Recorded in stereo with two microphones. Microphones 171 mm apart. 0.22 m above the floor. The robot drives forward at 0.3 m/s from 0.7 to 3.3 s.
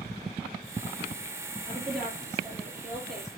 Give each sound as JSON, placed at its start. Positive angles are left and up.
{"t": 1.7, "sound": "a woman speaking", "side_deg": -5, "distance_m": 4.5}